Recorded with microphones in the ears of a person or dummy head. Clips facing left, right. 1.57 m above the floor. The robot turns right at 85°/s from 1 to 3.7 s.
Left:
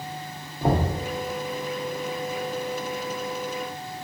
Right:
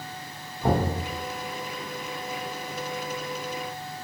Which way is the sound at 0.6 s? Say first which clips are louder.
Left 1 dB; 35° left (ahead or behind).